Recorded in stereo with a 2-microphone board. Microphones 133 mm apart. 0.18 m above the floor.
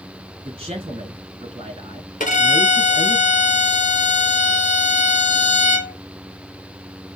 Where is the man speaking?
45° right (ahead or behind), 1.7 m.